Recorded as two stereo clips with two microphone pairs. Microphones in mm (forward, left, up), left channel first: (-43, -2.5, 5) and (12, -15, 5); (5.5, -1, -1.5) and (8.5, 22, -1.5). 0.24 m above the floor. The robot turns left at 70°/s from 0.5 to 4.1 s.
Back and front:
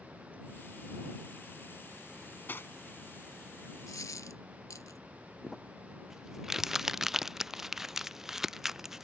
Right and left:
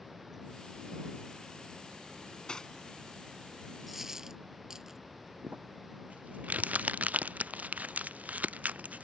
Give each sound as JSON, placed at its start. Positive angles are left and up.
{"t": 2.1, "sound": "cutlery clinking", "azimuth_deg": -120}
{"t": 3.9, "sound": "a dropped coin", "azimuth_deg": 170}
{"t": 5.4, "sound": "crumpling", "azimuth_deg": 75}